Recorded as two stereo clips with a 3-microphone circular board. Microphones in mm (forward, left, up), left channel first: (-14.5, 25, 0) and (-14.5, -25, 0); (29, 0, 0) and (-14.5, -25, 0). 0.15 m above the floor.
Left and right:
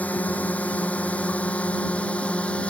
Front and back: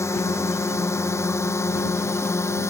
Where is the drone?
35° left; by 2.7 s 25° left.